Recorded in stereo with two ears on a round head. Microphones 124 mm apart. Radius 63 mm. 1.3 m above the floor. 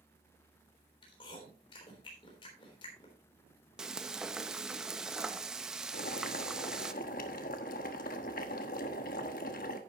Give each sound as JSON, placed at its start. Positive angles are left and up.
{"t": 1.0, "sound": "chewing", "side_deg": 35, "distance_m": 3.5}
{"t": 3.8, "sound": "frying", "side_deg": -5, "distance_m": 0.7}
{"t": 5.9, "sound": "boiling", "side_deg": 70, "distance_m": 1.3}